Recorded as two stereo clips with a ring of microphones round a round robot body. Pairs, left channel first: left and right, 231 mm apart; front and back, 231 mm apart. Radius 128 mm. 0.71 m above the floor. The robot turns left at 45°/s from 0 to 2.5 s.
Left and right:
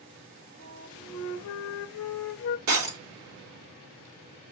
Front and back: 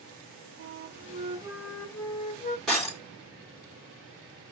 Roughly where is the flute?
Behind left.